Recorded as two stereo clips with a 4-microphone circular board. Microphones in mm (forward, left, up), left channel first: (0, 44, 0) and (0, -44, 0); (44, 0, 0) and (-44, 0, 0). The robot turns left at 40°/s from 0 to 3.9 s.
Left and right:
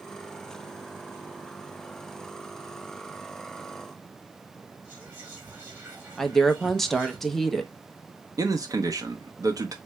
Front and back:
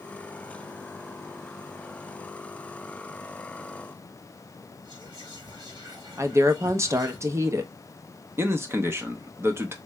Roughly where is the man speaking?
Behind right.